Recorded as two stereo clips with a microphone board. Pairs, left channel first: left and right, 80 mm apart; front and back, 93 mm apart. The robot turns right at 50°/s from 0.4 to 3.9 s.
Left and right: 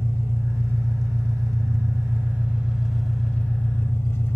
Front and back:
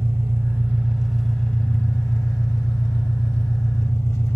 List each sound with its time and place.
0.0 s an engine running: 130° right, 0.9 m; by 4.4 s 45° left, 0.9 m